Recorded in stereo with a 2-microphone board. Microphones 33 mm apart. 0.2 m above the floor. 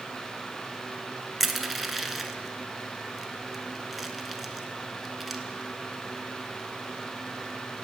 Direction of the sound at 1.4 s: 5° right (ahead or behind).